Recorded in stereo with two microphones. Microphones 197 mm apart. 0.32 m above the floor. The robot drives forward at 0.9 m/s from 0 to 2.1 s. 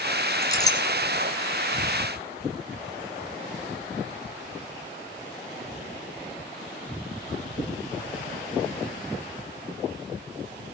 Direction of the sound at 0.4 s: 20° left (ahead or behind).